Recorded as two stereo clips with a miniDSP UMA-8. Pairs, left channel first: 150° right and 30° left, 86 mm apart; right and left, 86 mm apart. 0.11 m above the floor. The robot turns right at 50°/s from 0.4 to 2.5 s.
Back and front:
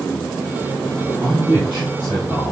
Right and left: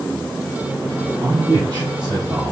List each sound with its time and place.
1.2 s a man speaking: 70° left, 2.5 m; by 2.5 s 135° left, 2.5 m